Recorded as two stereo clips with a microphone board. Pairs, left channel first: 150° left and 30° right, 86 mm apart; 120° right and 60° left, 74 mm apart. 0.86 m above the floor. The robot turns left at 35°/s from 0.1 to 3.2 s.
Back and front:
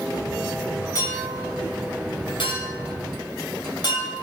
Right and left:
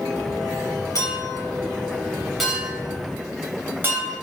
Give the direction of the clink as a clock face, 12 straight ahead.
5 o'clock.